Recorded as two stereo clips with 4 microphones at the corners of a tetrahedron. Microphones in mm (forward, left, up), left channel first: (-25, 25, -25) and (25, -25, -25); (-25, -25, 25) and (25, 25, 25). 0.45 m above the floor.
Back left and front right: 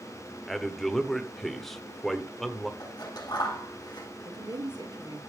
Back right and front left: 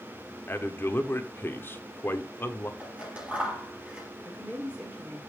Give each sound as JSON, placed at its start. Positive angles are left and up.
{"t": 0.5, "sound": "a man speaking", "azimuth_deg": -140, "distance_m": 1.3}
{"t": 2.8, "sound": "scissors", "azimuth_deg": 120, "distance_m": 5.5}
{"t": 4.2, "sound": "a woman speaking", "azimuth_deg": -25, "distance_m": 7.5}